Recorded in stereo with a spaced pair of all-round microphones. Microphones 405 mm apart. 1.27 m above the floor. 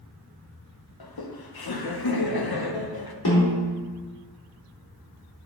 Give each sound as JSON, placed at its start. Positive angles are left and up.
{"t": 1.0, "sound": "laughter", "side_deg": 65, "distance_m": 0.7}
{"t": 3.2, "sound": "a snare drum", "side_deg": 70, "distance_m": 2.0}